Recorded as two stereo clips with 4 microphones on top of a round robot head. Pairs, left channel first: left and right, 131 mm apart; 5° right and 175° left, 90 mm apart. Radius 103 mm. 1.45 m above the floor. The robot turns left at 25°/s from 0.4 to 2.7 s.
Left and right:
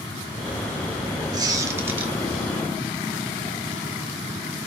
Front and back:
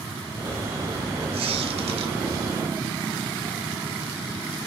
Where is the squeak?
150° right, 3 m; by 2.1 s 170° right, 3 m.